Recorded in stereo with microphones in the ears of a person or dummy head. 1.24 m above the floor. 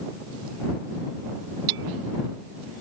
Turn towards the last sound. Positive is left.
turn(degrees=-75)  # may be behind; listen again after turning